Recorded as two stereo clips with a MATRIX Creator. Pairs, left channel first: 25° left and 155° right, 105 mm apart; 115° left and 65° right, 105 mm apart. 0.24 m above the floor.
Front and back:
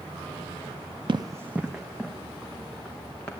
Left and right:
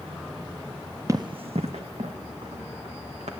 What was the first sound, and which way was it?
Running footsteps, 125° right.